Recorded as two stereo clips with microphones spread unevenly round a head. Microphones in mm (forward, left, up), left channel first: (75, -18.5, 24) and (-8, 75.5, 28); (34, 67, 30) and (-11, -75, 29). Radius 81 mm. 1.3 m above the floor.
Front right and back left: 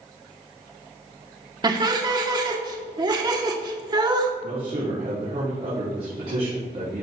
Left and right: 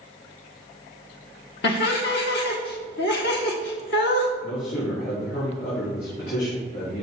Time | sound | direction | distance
1.6 | laughter | 75° left | 1.4 m
4.4 | a man speaking | 95° left | 4 m